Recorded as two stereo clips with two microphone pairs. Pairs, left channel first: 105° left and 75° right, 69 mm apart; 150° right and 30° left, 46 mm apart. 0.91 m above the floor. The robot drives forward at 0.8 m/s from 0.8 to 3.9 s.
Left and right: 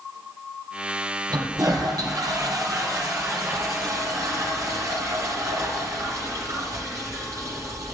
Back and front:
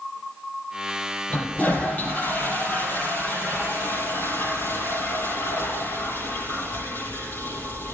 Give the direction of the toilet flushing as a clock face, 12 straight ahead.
3 o'clock.